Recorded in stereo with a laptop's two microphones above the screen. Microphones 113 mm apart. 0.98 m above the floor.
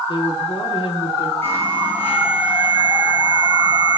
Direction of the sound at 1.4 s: 20° left (ahead or behind).